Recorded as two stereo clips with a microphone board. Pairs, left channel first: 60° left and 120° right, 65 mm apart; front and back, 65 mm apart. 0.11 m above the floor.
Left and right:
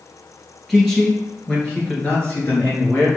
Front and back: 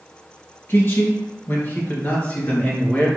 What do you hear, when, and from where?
0.7 s a man speaking: 25° right, 2.0 m; by 3.1 s 45° left, 1.7 m